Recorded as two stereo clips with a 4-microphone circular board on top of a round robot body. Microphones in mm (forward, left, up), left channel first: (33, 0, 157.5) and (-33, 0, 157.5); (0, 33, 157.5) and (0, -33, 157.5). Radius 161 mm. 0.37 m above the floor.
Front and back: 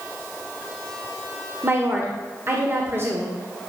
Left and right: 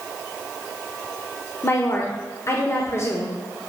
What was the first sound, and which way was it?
A woman speaking, 130° left.